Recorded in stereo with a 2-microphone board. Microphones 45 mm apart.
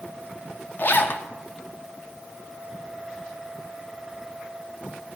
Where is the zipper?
45° left (ahead or behind), 0.6 m.